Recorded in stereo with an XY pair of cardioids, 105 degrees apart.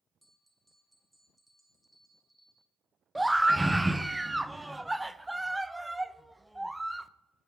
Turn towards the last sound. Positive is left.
turn(degrees=-5)